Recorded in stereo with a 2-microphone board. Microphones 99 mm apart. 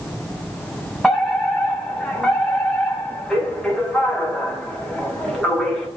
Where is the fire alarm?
5° left (ahead or behind), 6 m.